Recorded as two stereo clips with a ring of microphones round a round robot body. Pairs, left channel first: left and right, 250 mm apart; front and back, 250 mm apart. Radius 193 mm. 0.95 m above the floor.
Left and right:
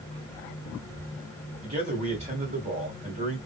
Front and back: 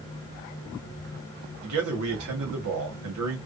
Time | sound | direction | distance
1.6 | a man speaking | 160° right | 1.7 m